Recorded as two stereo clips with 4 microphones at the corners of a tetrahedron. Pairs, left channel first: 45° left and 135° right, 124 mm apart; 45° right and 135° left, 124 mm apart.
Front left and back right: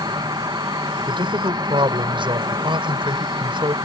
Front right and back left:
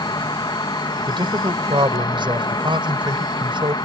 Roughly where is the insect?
Right.